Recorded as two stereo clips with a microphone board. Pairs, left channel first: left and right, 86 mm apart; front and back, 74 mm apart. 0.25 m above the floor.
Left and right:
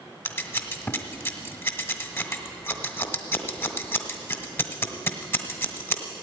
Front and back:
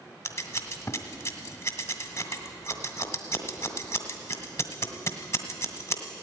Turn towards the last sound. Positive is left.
turn(degrees=40)